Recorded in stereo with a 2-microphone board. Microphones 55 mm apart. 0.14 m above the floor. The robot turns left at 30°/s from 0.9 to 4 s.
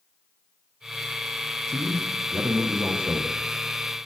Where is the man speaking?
100° right, 7 m; by 3.3 s 150° right, 7 m.